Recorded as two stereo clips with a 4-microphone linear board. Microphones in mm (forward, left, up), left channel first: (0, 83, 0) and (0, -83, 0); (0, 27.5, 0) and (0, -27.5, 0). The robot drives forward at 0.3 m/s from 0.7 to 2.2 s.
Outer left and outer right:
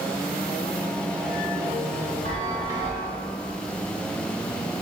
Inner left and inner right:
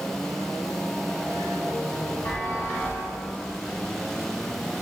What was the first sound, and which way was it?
A chime, 45° left (ahead or behind).